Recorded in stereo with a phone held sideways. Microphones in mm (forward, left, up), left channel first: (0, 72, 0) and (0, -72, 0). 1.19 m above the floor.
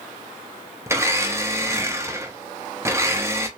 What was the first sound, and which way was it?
A blender, 20° right (ahead or behind).